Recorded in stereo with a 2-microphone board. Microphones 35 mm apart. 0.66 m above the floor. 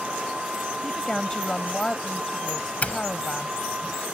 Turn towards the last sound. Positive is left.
turn(degrees=45)  # may be behind; listen again after turning